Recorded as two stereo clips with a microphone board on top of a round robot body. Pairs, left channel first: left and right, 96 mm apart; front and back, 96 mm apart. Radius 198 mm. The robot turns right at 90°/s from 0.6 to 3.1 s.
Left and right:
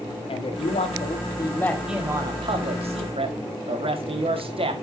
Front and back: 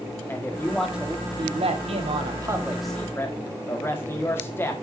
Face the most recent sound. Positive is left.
turn(degrees=-65)